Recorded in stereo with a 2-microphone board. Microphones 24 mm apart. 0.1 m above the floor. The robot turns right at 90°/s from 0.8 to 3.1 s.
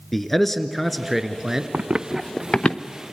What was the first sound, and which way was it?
A man speaking, 10° left (ahead or behind).